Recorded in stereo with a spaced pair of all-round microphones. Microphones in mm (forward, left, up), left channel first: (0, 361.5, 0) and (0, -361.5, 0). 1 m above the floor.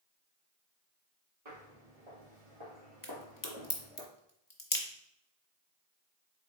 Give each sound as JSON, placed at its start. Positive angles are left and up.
{"t": 1.4, "sound": "footsteps", "side_deg": -55, "distance_m": 2.0}
{"t": 3.0, "sound": "a crack", "side_deg": 30, "distance_m": 0.8}